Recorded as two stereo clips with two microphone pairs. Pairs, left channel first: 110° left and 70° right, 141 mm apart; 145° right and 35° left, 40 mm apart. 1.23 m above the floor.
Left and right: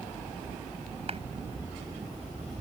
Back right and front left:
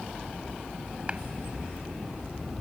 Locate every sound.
1.1 s a clap: 25° right